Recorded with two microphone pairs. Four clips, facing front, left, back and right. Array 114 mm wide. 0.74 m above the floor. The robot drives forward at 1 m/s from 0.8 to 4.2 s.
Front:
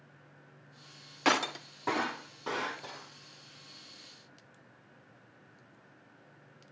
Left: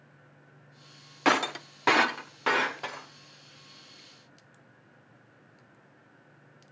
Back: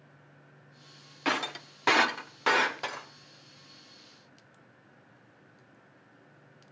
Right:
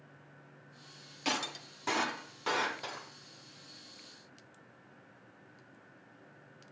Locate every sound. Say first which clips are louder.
1.2 s breaking glass: left 11 dB, front 2 dB; 75° left, 0.7 m; by 3.1 s 160° left, 1.8 m